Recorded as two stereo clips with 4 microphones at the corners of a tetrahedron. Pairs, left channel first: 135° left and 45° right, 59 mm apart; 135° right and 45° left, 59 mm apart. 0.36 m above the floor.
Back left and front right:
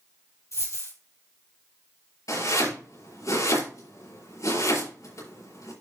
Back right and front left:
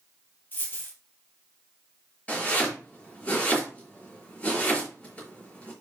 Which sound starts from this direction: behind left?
Chopping, at 2.3 s.